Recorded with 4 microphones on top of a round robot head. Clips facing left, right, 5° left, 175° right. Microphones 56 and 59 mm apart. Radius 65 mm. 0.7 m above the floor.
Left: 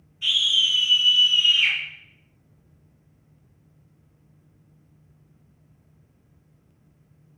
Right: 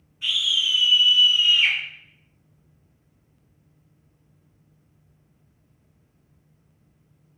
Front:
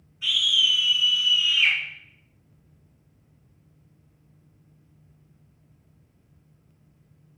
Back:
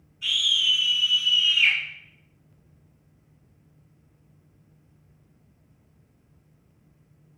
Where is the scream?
35° right, 1.7 m.